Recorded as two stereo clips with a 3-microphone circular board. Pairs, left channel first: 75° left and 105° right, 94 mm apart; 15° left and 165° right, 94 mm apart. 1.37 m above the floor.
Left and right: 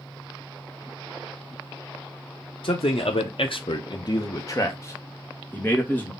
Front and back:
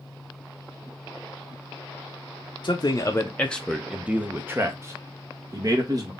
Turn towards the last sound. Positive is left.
turn(degrees=145)